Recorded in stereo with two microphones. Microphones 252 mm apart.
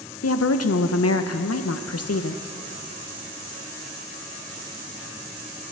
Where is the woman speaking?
75° left (ahead or behind), 0.5 m.